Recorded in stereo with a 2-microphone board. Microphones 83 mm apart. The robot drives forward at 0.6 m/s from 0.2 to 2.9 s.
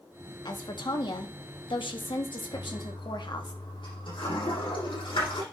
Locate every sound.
0.5 s a woman speaking: 60° left (ahead or behind), 1.8 m; by 3.5 s 65° left (ahead or behind), 1.8 m
2.5 s a toilet flushing: 80° left, 6.5 m